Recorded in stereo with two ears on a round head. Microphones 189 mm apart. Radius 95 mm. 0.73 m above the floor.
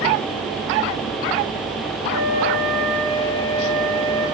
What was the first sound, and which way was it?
A flute, 50° right (ahead or behind).